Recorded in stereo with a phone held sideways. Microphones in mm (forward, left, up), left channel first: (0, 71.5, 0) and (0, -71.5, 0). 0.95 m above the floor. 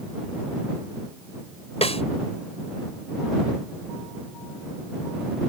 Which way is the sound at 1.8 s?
45° left (ahead or behind).